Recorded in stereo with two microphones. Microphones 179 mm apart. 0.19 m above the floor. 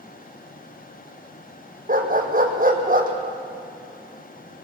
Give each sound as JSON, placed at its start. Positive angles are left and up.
{"t": 1.9, "sound": "a dog barking", "side_deg": -50, "distance_m": 2.5}